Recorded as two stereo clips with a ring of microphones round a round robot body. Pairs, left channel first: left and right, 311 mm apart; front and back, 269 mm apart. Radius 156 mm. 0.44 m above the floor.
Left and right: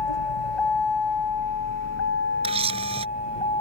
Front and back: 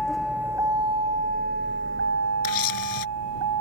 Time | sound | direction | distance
0.0 | a vehicle | 85° left | ?
2.4 | a camera shutter | 15° right | ?